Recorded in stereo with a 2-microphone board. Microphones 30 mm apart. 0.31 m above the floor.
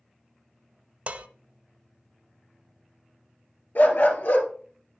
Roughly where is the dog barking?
Left.